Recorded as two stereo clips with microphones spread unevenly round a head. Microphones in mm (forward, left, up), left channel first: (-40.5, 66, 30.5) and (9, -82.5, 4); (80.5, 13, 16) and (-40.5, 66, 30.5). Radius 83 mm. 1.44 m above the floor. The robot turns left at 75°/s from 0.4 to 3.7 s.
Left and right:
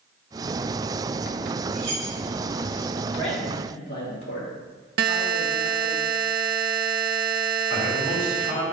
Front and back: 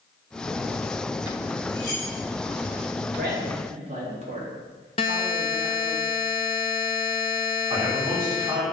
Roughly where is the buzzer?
Right.